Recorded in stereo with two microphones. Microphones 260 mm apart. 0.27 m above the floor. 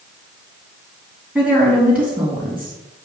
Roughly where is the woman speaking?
Centre.